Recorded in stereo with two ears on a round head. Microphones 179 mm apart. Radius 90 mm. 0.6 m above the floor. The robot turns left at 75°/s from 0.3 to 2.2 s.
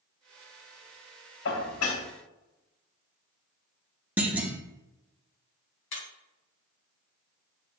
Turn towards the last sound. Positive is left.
turn(degrees=65)  # may be behind; listen again after turning